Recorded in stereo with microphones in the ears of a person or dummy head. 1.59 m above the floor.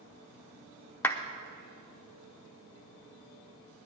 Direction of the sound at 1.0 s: 15° left (ahead or behind).